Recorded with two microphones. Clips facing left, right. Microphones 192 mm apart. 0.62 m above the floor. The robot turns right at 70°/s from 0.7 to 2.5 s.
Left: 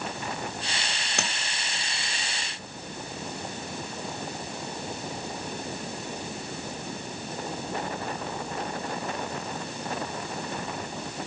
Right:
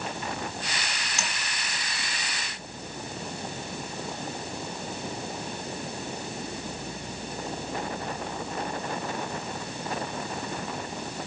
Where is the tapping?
60° left (ahead or behind), 1.8 m.